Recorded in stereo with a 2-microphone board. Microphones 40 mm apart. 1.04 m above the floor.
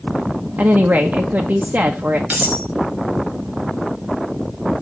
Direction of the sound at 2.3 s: 45° right (ahead or behind).